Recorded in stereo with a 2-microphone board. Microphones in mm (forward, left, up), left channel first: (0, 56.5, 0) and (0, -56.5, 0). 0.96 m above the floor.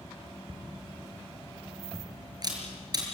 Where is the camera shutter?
35° right (ahead or behind), 5 m.